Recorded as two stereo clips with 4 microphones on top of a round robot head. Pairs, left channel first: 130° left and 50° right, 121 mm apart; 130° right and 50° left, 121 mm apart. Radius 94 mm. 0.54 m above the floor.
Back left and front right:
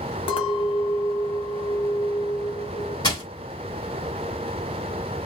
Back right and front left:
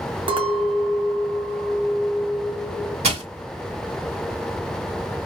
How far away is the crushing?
About 1.8 m.